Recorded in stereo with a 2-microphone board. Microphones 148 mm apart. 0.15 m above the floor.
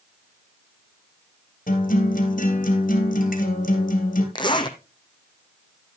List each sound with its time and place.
1.7 s a guitar: 65° left (ahead or behind), 2.5 m
4.3 s a zipper: 30° left (ahead or behind), 1.1 m